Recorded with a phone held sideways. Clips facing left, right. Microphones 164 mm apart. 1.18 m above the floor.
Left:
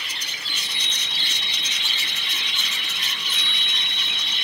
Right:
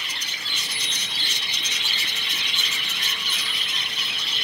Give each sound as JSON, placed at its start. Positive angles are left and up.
{"t": 0.5, "sound": "a chime", "side_deg": -10, "distance_m": 5.0}